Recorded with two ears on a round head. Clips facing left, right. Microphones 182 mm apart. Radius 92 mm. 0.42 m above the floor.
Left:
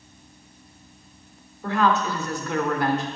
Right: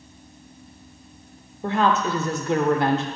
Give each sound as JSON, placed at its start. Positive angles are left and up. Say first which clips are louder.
{"t": 1.6, "sound": "a woman speaking", "louder": "right 1 dB", "side_deg": -20, "distance_m": 0.8}